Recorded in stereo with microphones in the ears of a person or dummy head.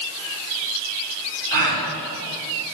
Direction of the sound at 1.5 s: 55° right (ahead or behind).